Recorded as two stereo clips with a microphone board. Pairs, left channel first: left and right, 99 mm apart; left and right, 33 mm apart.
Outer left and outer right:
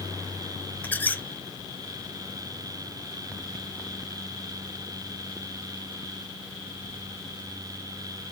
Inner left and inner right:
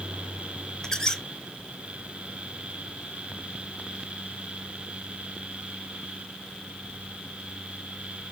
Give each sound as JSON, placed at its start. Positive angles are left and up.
{"t": 0.8, "sound": "a squeak", "side_deg": 15, "distance_m": 0.5}